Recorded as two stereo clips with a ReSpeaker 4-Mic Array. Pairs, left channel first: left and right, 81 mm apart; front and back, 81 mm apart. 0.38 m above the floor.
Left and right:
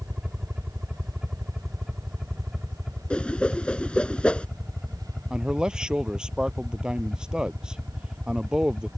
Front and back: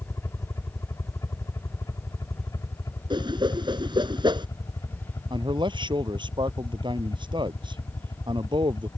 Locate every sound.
0.0 s a helicopter: 15° right; by 9.0 s 5° left
3.1 s a whoosh: 165° left
5.3 s a man speaking: 170° right